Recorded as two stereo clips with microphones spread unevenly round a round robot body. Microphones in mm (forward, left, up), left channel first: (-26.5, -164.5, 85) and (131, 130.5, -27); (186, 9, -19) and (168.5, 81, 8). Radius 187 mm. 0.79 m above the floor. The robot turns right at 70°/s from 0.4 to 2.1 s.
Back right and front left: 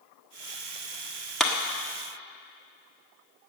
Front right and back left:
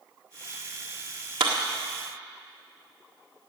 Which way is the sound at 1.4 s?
145° left.